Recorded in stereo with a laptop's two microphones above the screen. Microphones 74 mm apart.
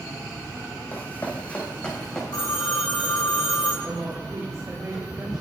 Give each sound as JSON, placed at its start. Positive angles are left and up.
{"t": 0.9, "sound": "running footsteps", "side_deg": 25, "distance_m": 2.5}
{"t": 2.3, "sound": "a phone ringing", "side_deg": 70, "distance_m": 3.0}
{"t": 3.8, "sound": "a woman speaking", "side_deg": -60, "distance_m": 2.5}